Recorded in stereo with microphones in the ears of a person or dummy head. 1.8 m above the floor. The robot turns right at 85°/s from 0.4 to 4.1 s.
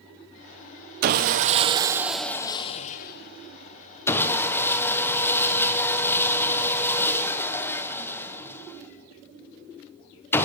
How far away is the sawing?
About 0.9 m.